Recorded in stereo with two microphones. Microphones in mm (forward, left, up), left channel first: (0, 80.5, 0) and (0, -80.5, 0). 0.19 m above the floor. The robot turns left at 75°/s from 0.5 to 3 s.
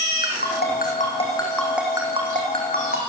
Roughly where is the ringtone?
Left.